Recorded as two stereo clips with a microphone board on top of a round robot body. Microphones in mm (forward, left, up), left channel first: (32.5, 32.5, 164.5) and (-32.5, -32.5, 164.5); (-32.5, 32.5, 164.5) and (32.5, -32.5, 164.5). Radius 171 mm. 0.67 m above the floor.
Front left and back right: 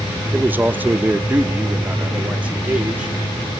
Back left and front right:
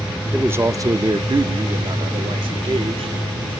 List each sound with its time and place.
0.3 s a man speaking: 95° right, 0.8 m; by 3.1 s 60° right, 2.5 m